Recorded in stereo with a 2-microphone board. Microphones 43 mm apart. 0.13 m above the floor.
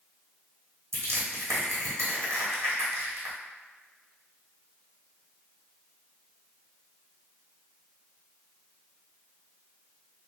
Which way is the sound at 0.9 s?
75° right (ahead or behind).